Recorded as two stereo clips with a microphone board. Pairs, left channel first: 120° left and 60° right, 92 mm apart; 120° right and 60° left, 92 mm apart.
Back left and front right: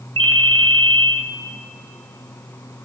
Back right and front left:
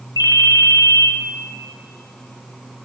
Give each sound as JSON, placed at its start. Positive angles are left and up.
{"t": 0.2, "sound": "a ringtone", "azimuth_deg": -80, "distance_m": 1.2}